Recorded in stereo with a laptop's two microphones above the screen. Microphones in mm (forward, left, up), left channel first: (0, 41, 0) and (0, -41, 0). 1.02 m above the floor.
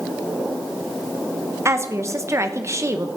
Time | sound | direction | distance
1.6 | a woman speaking | 35° right (ahead or behind) | 1.0 m